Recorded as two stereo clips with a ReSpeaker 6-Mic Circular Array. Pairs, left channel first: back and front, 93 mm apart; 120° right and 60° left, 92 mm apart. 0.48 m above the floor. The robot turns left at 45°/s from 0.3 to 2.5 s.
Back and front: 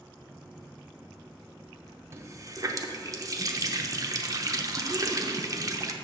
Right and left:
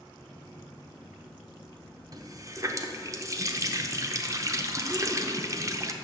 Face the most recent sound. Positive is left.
turn(degrees=25)